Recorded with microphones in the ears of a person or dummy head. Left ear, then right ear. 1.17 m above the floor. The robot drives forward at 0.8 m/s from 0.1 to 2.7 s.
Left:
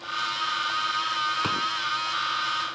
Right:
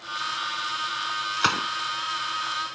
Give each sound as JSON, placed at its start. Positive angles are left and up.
{"t": 1.4, "sound": "a gunshot", "side_deg": -60}